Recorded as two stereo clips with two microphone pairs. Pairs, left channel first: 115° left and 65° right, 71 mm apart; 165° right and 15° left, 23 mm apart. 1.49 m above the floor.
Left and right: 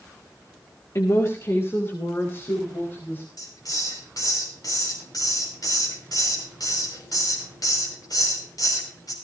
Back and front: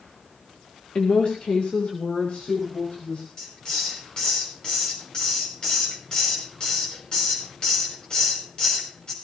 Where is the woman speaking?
155° left, 1.7 m; by 3.2 s 175° left, 4.5 m.